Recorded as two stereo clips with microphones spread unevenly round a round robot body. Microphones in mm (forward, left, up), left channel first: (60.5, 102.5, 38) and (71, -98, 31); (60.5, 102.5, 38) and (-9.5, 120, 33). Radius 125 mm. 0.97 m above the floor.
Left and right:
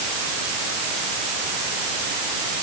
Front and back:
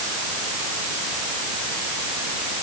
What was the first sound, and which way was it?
Only background noise.